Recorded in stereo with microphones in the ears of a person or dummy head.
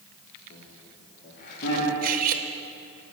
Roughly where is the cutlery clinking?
Right.